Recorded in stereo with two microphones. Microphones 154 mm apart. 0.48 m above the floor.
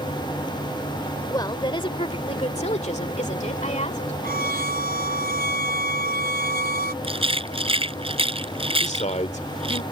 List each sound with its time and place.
1.3 s a woman speaking: 25° left (ahead or behind); by 4.1 s 45° left (ahead or behind)
4.2 s a violin: 80° right
7.0 s a rattle: 35° right (ahead or behind)
8.8 s a man speaking: 50° left (ahead or behind)